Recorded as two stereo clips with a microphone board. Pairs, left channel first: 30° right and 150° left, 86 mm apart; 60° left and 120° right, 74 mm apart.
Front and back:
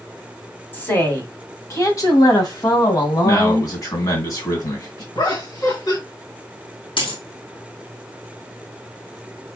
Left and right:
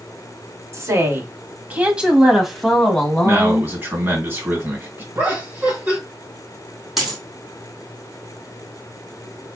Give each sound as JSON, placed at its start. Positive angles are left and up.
{"t": 0.7, "sound": "a woman speaking", "azimuth_deg": -90, "distance_m": 1.3}
{"t": 3.2, "sound": "a man speaking", "azimuth_deg": -65, "distance_m": 2.0}
{"t": 5.2, "sound": "laughter", "azimuth_deg": -60, "distance_m": 1.9}
{"t": 7.0, "sound": "a dropped coin", "azimuth_deg": -30, "distance_m": 1.8}